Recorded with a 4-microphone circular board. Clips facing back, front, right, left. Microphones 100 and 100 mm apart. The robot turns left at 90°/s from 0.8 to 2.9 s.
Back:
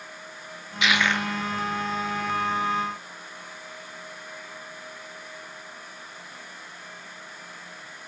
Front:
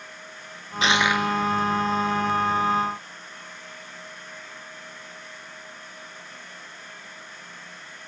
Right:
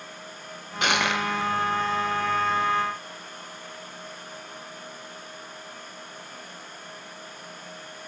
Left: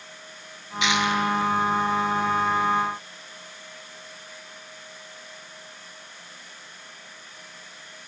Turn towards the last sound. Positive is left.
turn(degrees=120)